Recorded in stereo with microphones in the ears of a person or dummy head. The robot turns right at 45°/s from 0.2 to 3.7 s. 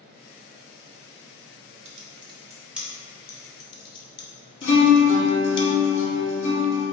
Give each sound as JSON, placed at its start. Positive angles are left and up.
{"t": 1.9, "sound": "typing on a keyboard", "side_deg": -40, "distance_m": 0.6}
{"t": 4.6, "sound": "a guitar", "side_deg": 65, "distance_m": 1.3}